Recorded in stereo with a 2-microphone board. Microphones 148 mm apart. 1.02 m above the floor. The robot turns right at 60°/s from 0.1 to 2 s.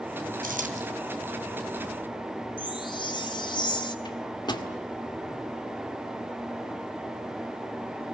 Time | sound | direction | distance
0.4 | a dropped coin | 70° right (ahead or behind) | 3 m
2.6 | a chime | 30° left (ahead or behind) | 1.7 m
4.0 | a microwave | 30° left (ahead or behind) | 1.9 m